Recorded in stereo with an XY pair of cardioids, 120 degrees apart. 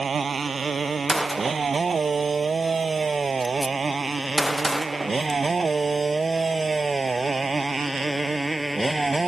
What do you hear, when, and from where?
0.0 s a motorcycle: 30° right; by 9.3 s 15° right
1.1 s a gunshot: 10° right